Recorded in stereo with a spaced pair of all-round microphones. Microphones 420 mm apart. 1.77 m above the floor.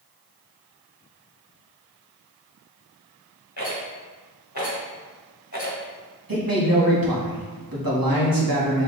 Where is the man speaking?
55° right (ahead or behind), 1.4 m.